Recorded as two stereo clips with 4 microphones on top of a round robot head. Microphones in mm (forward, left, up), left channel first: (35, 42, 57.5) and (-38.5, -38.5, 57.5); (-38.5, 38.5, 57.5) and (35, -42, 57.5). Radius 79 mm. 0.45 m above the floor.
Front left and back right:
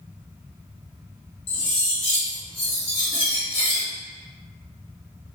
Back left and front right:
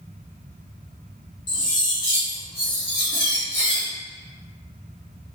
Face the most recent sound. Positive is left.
turn(degrees=85)